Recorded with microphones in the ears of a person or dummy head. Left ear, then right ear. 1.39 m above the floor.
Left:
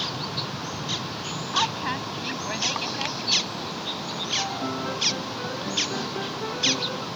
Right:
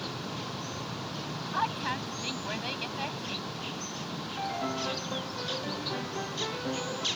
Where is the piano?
15° right (ahead or behind).